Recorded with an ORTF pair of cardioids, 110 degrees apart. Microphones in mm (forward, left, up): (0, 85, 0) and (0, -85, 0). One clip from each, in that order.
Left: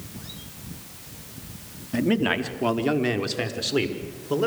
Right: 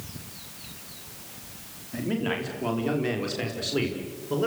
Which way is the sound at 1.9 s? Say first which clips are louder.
Left 6 dB; 50° left.